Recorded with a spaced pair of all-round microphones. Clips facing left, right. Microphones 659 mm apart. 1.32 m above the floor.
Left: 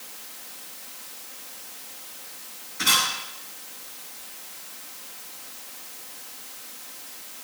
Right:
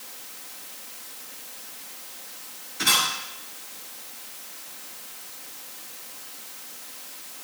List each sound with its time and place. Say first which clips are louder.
2.8 s a camera shutter: right 1 dB; 10° left (ahead or behind), 9.5 m